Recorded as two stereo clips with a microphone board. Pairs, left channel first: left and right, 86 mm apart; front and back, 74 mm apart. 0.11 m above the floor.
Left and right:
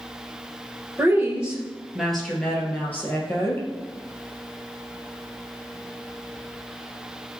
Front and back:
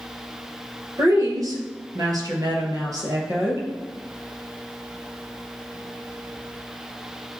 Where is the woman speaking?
155° right, 2 m; by 3.7 s 145° left, 2.5 m.